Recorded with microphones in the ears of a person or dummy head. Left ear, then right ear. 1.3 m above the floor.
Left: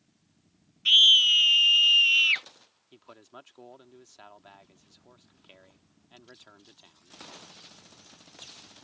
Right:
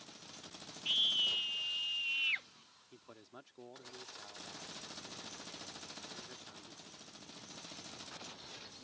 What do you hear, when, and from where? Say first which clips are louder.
0.8 s a scream: left 15 dB; 50° left (ahead or behind)
2.9 s a man speaking: left 7 dB; 35° left (ahead or behind)